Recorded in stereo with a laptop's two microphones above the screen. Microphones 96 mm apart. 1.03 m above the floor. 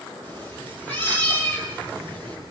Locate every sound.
0.2 s a cat meowing: 20° left (ahead or behind), 8 m